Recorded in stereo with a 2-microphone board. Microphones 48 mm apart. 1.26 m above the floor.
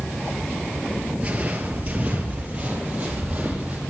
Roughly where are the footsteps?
Right.